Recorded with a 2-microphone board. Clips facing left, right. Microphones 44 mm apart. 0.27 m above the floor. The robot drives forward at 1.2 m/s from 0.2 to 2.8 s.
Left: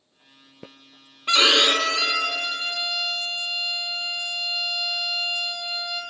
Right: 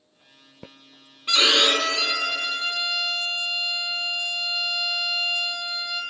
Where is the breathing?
No breathing in this recording.